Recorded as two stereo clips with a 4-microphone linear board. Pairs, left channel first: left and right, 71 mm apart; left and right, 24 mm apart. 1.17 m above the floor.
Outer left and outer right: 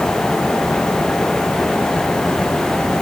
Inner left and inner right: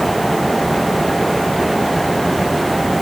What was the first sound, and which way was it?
Only background noise.